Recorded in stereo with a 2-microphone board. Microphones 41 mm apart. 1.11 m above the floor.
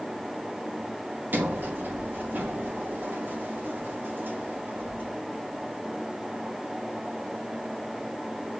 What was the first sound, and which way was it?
A sliding door, 50° right (ahead or behind).